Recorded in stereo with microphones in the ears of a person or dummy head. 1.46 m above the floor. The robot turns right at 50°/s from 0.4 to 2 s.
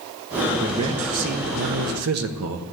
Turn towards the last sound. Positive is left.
turn(degrees=-95)